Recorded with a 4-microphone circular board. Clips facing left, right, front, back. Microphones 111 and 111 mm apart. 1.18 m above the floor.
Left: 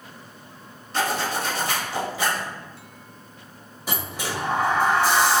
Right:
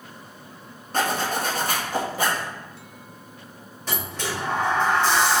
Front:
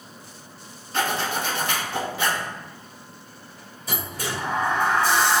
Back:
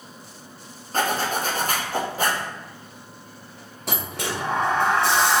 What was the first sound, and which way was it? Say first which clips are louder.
A zipper: right 1 dB, back 2 dB; 130° right.